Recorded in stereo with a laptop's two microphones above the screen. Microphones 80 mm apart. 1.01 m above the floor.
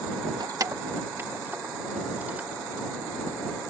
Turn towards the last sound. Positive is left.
turn(degrees=-20)  # may be behind; listen again after turning